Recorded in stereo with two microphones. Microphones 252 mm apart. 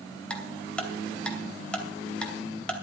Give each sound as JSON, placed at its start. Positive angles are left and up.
{"t": 0.3, "sound": "ticking", "side_deg": 5, "distance_m": 2.5}